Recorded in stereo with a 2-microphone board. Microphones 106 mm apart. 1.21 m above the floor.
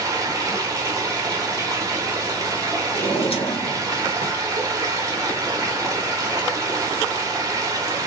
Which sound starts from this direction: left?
A drawer, at 2.9 s.